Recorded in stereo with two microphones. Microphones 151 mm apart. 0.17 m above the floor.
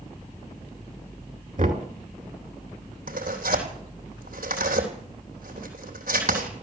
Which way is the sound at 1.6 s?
60° right (ahead or behind).